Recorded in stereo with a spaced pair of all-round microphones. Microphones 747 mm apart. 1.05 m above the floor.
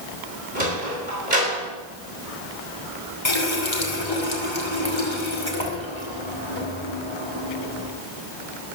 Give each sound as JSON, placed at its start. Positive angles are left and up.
{"t": 0.6, "sound": "a sliding door", "side_deg": -75, "distance_m": 4.5}
{"t": 3.2, "sound": "a running tap", "side_deg": 35, "distance_m": 2.5}